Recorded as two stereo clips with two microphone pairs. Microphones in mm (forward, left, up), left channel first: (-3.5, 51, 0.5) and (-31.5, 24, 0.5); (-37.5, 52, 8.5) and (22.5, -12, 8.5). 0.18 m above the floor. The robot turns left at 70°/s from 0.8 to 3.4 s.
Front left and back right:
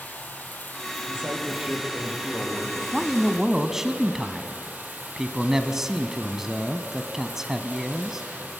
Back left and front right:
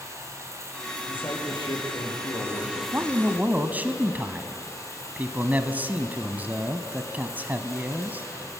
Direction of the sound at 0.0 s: 10° left.